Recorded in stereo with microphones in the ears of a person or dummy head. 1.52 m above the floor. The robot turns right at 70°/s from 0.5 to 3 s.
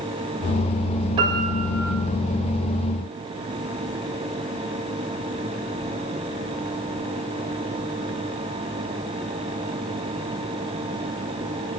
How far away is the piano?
About 7.5 m.